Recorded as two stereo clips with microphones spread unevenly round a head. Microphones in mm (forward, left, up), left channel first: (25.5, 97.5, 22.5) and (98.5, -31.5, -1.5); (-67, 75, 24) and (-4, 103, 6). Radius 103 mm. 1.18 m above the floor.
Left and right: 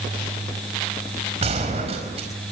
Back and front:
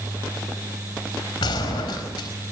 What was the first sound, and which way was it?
A gunshot, 125° right.